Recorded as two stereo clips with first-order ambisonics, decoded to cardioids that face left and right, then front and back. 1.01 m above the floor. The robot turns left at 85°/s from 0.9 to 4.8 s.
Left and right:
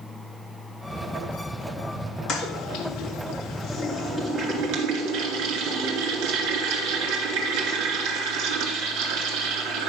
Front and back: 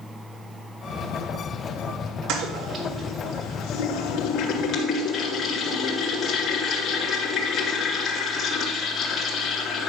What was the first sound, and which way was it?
A toilet flushing, 145° left.